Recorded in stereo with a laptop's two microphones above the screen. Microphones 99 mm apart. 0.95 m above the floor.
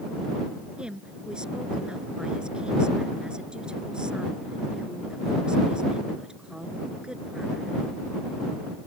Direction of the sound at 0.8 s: 10° right (ahead or behind).